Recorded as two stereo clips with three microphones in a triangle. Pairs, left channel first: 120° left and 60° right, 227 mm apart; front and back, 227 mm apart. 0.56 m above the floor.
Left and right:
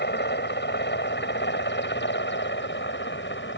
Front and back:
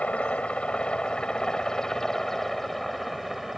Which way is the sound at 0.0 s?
85° left.